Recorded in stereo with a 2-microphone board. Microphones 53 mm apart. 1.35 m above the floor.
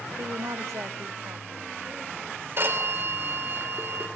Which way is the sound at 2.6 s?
50° right (ahead or behind).